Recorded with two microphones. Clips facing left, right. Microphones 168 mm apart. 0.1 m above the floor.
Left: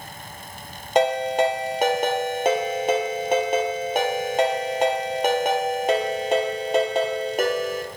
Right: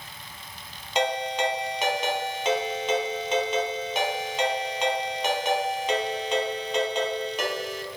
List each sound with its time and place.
0.9 s a ringtone: 55° left (ahead or behind), 1.0 m